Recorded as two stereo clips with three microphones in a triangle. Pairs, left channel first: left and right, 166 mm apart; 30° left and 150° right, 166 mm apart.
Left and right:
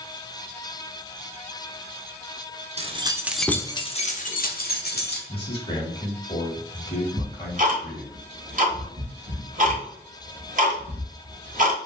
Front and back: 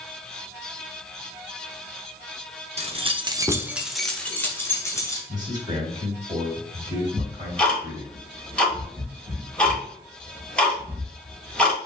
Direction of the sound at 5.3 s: 145° left.